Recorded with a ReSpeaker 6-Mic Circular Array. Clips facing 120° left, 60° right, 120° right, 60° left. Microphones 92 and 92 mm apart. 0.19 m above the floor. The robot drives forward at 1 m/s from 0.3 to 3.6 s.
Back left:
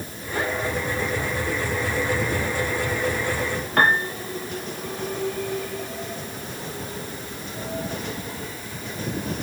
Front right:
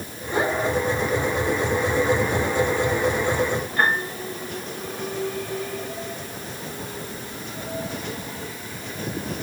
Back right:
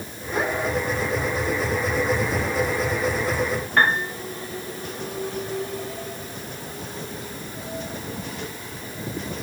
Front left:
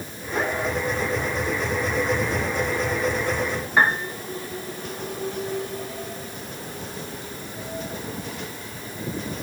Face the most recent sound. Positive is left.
turn(degrees=140)